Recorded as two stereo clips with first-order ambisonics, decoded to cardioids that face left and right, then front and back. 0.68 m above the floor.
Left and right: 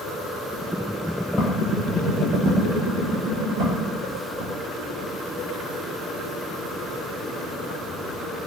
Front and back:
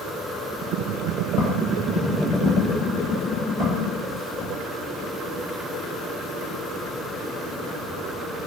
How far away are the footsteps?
About 1.0 m.